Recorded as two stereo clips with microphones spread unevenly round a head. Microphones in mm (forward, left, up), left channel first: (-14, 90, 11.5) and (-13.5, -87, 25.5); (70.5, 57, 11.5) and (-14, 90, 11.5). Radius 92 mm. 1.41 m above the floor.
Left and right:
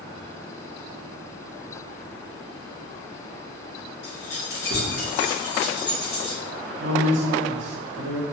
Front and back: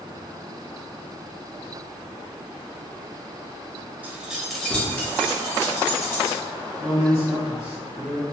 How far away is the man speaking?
About 0.6 m.